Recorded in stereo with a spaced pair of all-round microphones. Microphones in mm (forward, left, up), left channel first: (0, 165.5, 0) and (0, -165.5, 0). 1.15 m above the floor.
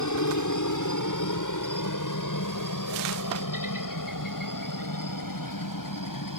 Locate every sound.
0.0 s a helicopter: 60° left (ahead or behind); by 6.4 s 70° left (ahead or behind)